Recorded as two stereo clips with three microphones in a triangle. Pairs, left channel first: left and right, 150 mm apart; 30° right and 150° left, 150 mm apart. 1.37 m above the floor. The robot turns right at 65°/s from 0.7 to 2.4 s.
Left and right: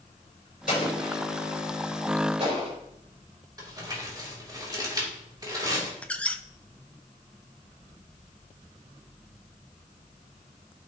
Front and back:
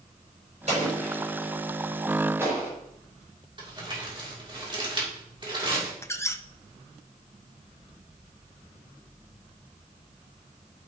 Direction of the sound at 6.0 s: 20° left.